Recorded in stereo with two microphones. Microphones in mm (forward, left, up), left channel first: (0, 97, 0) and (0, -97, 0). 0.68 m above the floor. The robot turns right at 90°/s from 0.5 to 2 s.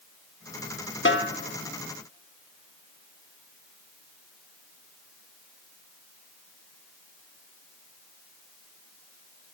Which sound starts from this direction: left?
A snare drum, at 1.1 s.